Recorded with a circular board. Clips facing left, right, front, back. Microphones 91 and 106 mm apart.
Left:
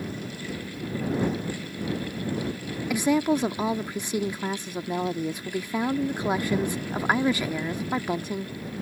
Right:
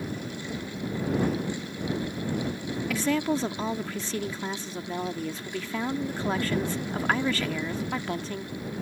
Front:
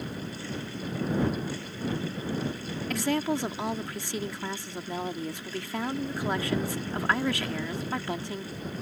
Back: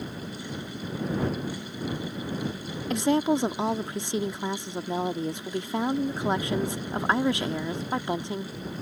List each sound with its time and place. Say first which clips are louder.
2.9 s a woman speaking: left 4 dB, back 5 dB; 145° left